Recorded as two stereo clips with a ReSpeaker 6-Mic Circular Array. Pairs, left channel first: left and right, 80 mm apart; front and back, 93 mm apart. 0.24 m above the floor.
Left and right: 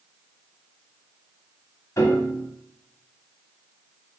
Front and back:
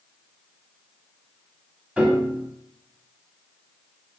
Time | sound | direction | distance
2.0 | a piano | 110° left | 0.8 m